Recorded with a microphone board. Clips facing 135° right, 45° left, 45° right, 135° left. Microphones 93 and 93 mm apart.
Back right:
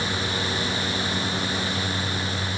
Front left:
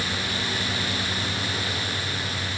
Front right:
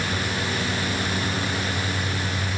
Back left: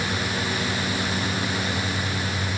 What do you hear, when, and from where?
Only background noise.